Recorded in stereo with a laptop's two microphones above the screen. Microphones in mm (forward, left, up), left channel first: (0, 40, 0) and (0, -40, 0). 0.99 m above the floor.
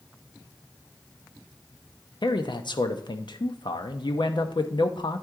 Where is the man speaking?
70° left (ahead or behind), 0.6 m.